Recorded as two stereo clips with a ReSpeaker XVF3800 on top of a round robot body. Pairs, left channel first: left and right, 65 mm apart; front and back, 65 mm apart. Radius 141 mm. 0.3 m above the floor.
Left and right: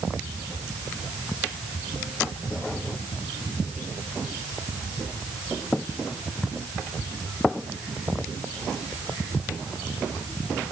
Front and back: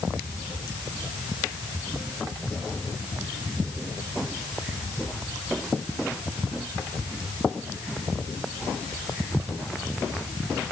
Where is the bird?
I don't hear a bird.